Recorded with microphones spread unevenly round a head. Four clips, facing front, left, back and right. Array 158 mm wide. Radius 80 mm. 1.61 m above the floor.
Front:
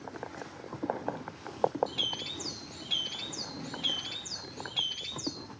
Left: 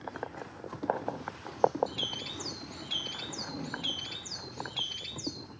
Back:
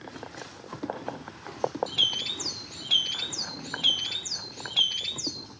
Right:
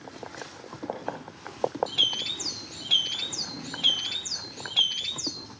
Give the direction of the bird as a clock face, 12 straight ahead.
5 o'clock.